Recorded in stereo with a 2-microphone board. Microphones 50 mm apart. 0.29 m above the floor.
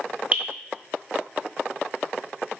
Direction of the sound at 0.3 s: 30° right (ahead or behind).